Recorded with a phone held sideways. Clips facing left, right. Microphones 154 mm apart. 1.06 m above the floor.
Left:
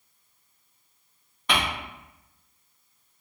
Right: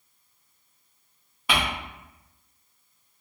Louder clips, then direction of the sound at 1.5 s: Even; 5° right (ahead or behind).